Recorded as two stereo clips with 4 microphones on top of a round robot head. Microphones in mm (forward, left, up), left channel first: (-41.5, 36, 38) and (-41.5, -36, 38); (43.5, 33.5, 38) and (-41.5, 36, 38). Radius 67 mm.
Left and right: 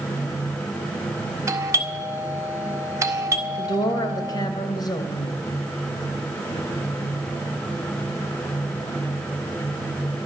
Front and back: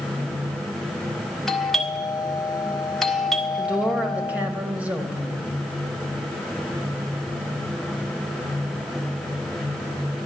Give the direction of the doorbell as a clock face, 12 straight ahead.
3 o'clock.